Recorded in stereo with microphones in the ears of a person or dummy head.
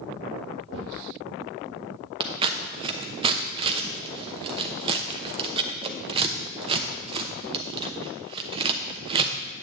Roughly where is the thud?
Left.